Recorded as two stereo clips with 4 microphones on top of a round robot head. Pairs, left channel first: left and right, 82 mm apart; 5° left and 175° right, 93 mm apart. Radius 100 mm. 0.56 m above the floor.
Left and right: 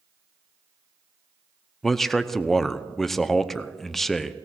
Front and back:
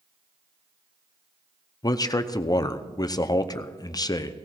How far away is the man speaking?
About 0.7 m.